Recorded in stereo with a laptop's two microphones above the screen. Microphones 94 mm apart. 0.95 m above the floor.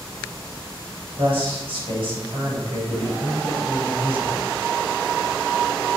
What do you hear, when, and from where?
1.2 s a man speaking: 65° right (ahead or behind), 4.5 m